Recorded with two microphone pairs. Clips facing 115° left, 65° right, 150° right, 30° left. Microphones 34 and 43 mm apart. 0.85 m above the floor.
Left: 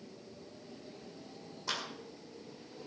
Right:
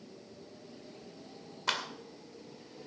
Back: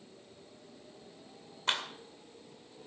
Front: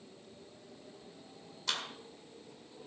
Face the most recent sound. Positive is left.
turn(degrees=-100)